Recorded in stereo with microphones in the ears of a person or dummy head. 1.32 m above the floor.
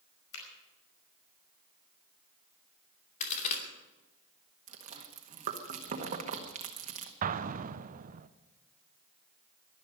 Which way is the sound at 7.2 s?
35° right (ahead or behind).